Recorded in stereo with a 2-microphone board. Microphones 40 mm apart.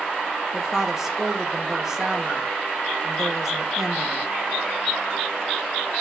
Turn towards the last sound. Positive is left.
turn(degrees=-15)  # may be behind; listen again after turning